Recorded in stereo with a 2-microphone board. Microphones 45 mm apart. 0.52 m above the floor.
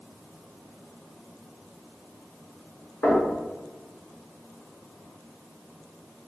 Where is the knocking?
50° left (ahead or behind), 1.5 m.